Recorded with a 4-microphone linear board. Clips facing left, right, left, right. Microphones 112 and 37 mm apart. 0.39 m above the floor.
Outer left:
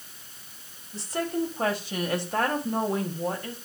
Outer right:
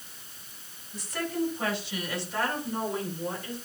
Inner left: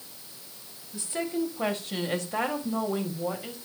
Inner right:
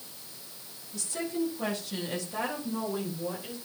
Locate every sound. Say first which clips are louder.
0.9 s a woman speaking: outer left 3 dB, inner left 2 dB; 30° left (ahead or behind), 2 m; by 3.6 s 55° left (ahead or behind), 2 m